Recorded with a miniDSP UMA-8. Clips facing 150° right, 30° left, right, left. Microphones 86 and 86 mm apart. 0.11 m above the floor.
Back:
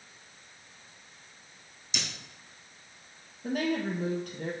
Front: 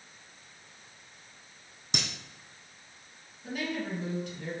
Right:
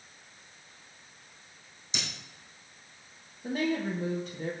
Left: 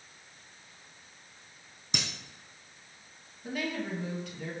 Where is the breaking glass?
60° left, 3 m.